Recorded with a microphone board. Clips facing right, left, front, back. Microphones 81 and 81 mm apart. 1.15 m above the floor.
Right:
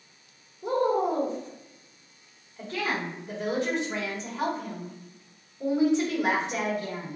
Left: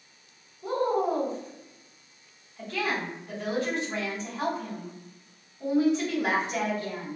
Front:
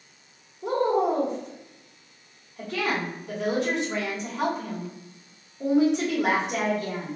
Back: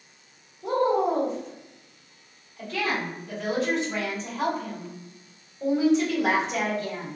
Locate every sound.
0.6 s a woman speaking: 25° right, 1.8 m